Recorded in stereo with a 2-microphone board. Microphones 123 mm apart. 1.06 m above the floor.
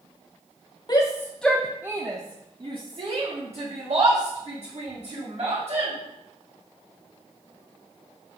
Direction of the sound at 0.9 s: 35° left (ahead or behind).